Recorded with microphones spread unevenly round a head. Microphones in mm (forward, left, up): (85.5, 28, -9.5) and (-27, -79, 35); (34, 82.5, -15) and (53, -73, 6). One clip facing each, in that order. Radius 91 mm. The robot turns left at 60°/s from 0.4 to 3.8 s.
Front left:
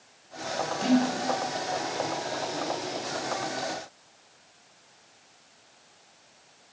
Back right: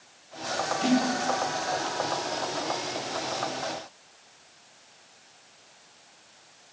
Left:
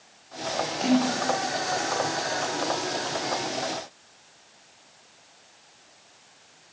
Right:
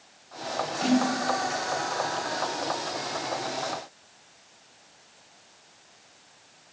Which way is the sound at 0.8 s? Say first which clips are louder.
Front left 1 dB, left 1 dB; 10° left.